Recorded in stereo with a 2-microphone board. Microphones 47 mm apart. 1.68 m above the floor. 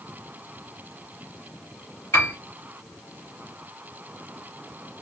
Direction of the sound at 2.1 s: 55° left (ahead or behind).